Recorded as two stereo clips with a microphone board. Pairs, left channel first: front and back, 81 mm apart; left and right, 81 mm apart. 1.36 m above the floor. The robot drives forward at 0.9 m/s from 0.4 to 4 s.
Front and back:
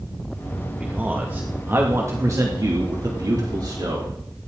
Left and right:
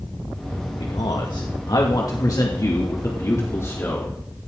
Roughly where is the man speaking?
Left.